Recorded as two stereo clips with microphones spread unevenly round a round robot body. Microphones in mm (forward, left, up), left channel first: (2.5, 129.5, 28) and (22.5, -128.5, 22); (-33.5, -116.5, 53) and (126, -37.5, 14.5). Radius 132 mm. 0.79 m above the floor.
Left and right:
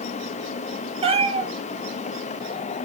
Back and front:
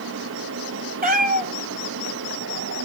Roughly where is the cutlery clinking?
I don't hear cutlery clinking.